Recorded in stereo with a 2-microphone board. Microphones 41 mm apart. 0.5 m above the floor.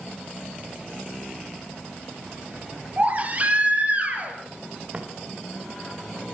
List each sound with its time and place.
3.0 s a baby crying: 35° right (ahead or behind), 6.5 m
4.9 s footsteps: 30° right (ahead or behind), 5 m